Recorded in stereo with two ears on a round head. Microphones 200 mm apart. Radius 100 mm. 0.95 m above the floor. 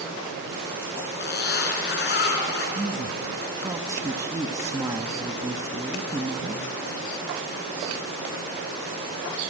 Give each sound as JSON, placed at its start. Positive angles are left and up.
{"t": 1.2, "sound": "a zipper", "side_deg": 50, "distance_m": 3.5}
{"t": 2.8, "sound": "a woman speaking", "side_deg": -15, "distance_m": 1.0}